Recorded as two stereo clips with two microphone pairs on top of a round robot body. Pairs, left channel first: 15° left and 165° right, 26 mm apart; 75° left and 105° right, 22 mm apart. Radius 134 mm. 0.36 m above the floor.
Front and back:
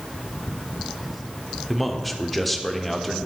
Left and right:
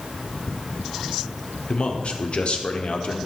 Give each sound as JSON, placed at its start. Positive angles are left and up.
{"t": 1.7, "sound": "a man speaking", "azimuth_deg": 90, "distance_m": 1.4}